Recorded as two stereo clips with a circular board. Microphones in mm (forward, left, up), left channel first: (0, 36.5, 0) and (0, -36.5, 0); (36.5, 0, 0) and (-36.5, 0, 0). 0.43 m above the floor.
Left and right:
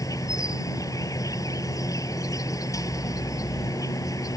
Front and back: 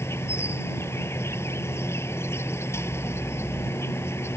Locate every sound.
0.0 s an insect: 55° left